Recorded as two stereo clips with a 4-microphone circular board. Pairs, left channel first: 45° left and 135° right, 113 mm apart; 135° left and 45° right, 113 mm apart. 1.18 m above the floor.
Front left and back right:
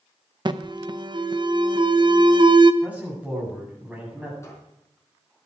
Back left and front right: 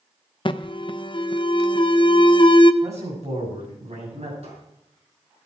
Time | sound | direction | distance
0.5 | an alarm | straight behind | 0.7 m
2.8 | a man speaking | 60° right | 8.5 m
4.4 | a squeak | 20° right | 5.5 m